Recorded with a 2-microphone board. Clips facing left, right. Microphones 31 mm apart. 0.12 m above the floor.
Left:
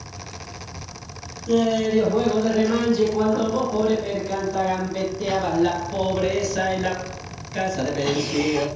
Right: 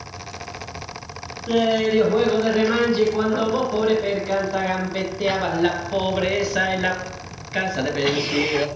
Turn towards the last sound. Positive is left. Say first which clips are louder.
# right 1 dB
turn(degrees=-35)  # may be behind; listen again after turning